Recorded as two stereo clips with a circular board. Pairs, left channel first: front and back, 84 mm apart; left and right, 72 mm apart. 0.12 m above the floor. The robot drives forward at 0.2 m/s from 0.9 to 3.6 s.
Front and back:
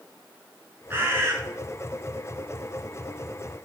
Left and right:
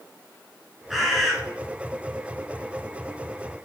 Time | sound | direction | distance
0.9 | a bird | 175° right | 0.7 m